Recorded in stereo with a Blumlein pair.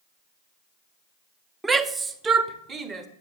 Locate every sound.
1.6 s a shout: 10° right, 0.6 m; by 3.1 s 20° right, 1.4 m